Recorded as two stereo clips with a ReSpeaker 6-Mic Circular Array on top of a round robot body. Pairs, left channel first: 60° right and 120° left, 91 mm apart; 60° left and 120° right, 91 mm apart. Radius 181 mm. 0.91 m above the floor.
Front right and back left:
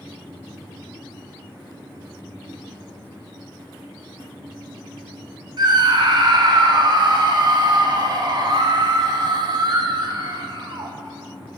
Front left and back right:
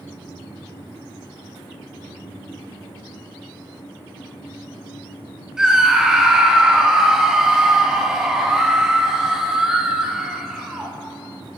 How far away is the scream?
About 1.6 m.